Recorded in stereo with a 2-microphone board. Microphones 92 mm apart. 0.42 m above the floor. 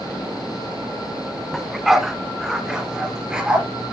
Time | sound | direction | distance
1.5 | a dog barking | centre (ahead or behind) | 1.0 m